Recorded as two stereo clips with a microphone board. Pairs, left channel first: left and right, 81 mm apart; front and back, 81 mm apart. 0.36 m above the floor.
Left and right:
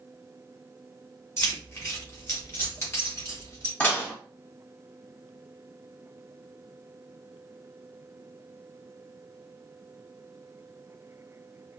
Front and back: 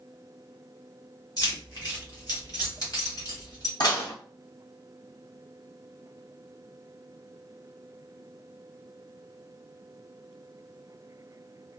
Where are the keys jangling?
35° left, 1.7 m; by 3.7 s 40° left, 3 m.